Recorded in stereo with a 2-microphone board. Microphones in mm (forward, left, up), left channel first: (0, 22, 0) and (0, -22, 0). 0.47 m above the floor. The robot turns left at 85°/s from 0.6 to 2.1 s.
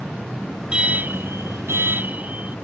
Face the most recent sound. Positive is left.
turn(degrees=-135)